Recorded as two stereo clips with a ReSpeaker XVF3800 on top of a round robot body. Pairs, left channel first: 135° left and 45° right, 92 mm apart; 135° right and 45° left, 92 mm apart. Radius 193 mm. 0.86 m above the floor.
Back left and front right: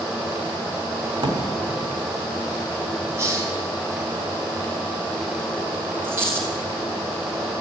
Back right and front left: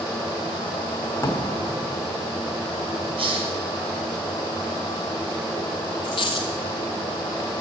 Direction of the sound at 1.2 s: 70° right.